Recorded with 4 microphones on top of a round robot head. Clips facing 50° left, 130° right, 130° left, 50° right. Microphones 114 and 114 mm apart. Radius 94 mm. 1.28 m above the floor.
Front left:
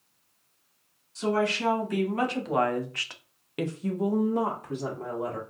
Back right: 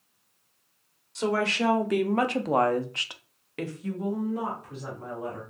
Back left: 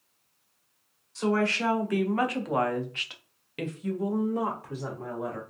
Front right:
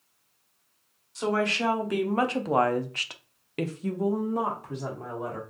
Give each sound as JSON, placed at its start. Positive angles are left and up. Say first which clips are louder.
{"t": 1.1, "sound": "a woman speaking", "louder": "even, even", "azimuth_deg": -120, "distance_m": 1.2}